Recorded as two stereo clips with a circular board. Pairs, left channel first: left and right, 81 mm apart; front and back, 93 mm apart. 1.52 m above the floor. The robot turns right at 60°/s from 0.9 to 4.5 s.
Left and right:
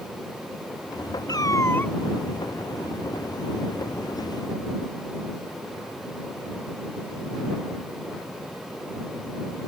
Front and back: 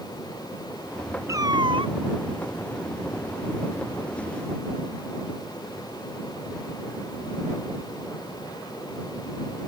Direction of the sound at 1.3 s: 125° left.